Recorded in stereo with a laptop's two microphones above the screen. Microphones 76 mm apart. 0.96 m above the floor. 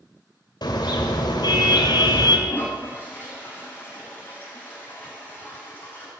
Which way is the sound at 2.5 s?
25° left (ahead or behind).